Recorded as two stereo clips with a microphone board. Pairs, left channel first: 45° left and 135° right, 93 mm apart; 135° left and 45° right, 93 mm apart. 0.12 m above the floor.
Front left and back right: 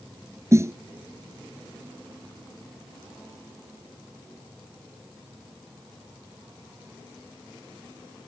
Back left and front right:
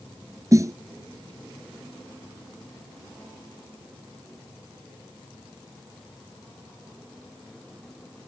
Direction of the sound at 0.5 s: 85° right.